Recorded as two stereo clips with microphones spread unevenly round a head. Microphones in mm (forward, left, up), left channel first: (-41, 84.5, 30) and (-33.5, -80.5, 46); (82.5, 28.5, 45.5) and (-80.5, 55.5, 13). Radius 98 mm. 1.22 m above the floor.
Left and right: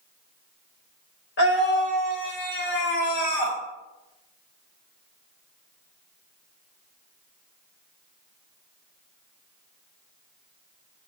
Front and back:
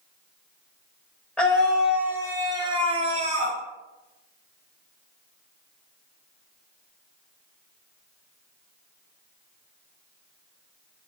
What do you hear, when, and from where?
1.4 s a scream: 75° left, 1.4 m; by 3.6 s 130° left, 1.5 m